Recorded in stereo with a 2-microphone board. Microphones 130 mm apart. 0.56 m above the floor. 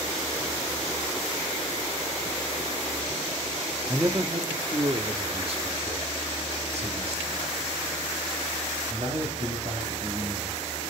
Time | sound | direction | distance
3.9 | a man speaking | 20° right (ahead or behind) | 1.0 m